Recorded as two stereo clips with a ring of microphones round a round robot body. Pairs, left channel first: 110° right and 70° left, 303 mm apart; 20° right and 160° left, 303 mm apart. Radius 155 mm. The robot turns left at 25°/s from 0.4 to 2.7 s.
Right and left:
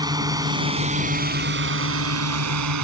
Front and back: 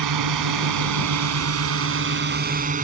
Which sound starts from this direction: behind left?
A drone, at 0.0 s.